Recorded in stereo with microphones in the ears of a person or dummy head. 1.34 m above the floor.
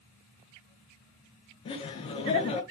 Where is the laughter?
35° left (ahead or behind), 0.6 m.